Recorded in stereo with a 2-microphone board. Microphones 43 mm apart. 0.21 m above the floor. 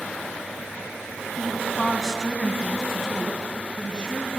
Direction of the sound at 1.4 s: 15° right (ahead or behind).